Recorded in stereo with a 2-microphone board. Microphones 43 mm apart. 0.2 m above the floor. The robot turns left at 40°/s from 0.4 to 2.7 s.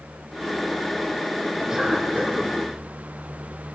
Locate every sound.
1.7 s a cough: 20° right, 3 m; by 2.5 s 50° right, 3 m